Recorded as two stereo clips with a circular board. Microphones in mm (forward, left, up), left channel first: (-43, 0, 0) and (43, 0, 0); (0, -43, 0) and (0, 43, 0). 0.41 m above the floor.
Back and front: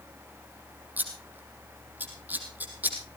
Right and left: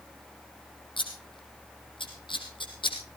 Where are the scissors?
70° right, 4 m.